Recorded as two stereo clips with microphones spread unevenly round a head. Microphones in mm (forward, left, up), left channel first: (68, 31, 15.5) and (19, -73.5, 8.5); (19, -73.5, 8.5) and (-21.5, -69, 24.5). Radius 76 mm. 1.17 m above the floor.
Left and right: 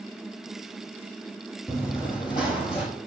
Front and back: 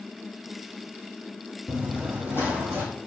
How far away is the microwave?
No microwave in this recording.